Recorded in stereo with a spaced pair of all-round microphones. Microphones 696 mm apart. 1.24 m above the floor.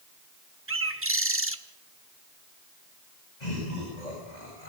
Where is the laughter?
80° left, 6.5 m.